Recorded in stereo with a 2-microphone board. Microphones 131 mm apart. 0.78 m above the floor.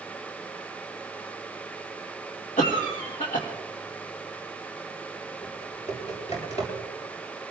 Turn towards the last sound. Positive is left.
turn(degrees=55)  # may be behind; listen again after turning